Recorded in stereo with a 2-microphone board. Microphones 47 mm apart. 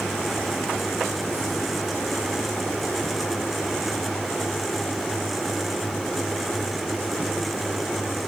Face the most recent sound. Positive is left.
No sound to turn to.